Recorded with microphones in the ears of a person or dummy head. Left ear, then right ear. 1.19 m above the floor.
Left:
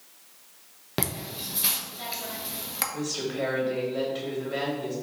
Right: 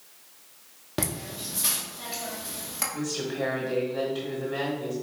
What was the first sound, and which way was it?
Laughter, 15° left (ahead or behind).